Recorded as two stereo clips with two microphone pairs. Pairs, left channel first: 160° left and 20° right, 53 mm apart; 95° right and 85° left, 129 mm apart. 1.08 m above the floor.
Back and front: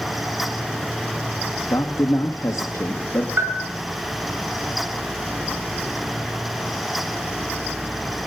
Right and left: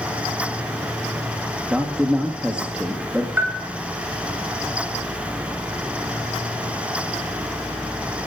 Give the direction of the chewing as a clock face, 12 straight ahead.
I don't hear chewing.